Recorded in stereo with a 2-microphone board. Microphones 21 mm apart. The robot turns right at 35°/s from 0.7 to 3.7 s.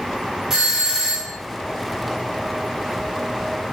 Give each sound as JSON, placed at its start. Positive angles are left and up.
{"t": 0.5, "sound": "a doorbell", "side_deg": -20, "distance_m": 1.5}